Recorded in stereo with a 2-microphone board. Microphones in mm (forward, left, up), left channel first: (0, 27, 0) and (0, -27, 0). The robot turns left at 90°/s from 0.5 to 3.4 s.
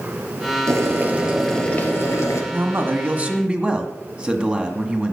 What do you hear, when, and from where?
0.7 s boiling: 110° right, 2.5 m; by 2.4 s 90° left, 2.5 m
2.5 s a man speaking: 70° right, 1.7 m; by 5.1 s 150° right, 1.7 m